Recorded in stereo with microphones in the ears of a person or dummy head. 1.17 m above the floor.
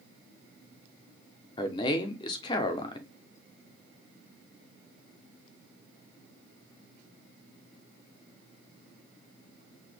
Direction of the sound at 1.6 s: 25° left (ahead or behind).